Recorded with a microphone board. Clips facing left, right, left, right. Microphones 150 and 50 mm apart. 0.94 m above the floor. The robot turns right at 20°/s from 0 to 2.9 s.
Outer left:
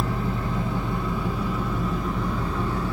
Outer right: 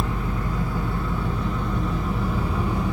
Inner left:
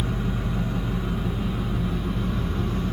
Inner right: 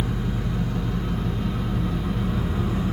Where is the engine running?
140° left, 1.4 m; by 2.9 s 160° right, 1.4 m.